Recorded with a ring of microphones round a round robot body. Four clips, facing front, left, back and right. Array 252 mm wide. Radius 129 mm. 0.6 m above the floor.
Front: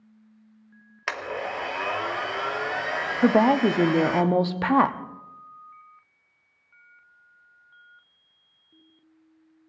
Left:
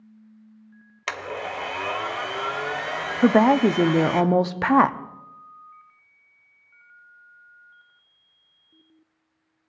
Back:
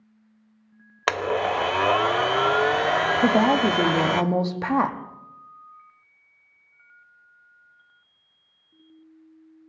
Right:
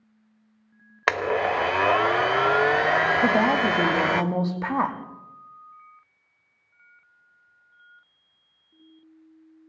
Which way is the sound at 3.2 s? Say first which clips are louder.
Left 4 dB, front 3 dB; 70° left.